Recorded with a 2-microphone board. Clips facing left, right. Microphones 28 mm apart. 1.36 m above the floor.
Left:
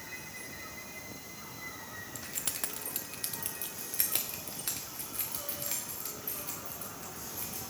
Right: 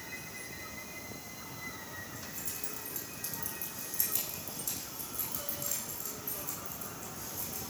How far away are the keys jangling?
About 0.9 m.